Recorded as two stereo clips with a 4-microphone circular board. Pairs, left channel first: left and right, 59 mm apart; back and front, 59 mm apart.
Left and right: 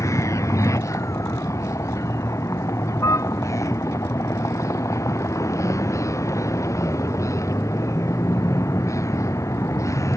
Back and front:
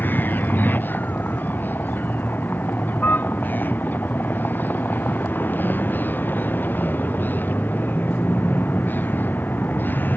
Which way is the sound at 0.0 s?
120° left.